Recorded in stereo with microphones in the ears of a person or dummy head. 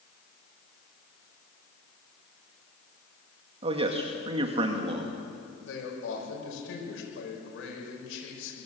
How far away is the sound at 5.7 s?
About 6 m.